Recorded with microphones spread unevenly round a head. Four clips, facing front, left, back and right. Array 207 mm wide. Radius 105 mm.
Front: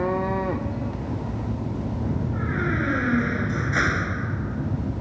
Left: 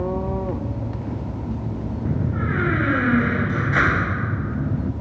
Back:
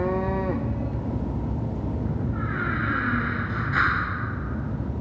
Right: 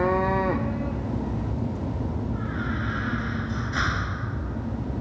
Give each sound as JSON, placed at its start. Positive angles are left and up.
{"t": 2.0, "sound": "a door slam", "azimuth_deg": 80}